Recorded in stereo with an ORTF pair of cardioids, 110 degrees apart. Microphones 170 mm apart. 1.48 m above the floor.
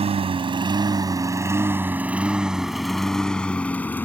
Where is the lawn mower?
40° right; by 4.0 s 10° left.